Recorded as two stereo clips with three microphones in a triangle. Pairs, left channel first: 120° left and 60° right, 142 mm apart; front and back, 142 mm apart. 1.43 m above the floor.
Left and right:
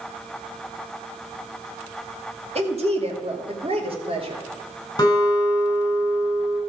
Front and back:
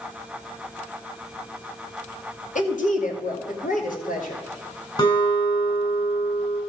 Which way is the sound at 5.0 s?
55° left.